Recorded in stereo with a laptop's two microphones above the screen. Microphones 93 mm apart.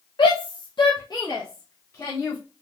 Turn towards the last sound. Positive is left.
turn(degrees=30)  # may be behind; listen again after turning